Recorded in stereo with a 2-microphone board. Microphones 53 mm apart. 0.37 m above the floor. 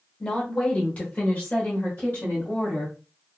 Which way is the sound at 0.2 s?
10° left (ahead or behind).